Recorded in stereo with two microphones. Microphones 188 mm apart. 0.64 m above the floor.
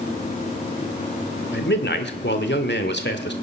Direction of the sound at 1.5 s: 70° left (ahead or behind).